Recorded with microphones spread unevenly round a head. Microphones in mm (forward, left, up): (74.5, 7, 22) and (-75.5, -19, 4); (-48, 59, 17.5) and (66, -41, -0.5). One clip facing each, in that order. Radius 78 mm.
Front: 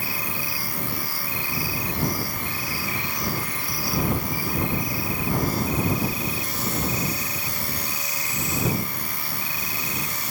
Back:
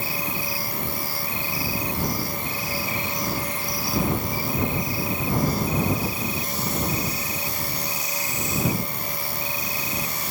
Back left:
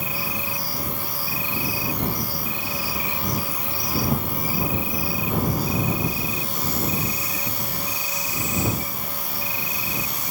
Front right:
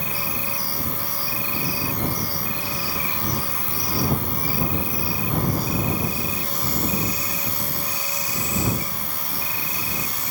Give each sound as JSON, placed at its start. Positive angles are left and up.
{"t": 0.0, "sound": "an insect", "azimuth_deg": 15}